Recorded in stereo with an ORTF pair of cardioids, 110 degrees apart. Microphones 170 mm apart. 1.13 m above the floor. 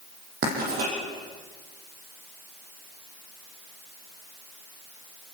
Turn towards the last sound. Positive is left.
turn(degrees=-60)